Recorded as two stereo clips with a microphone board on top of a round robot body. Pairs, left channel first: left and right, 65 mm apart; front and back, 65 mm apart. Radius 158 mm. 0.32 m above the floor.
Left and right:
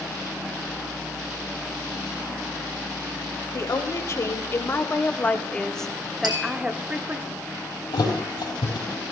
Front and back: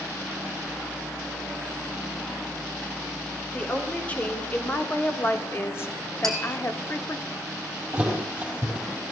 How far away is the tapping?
About 5 m.